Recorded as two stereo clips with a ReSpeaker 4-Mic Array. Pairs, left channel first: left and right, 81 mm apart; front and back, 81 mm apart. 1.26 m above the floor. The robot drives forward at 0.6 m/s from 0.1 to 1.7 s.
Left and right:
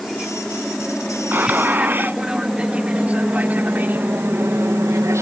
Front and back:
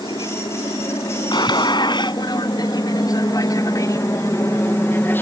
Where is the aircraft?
Straight ahead; by 5.2 s 55° right.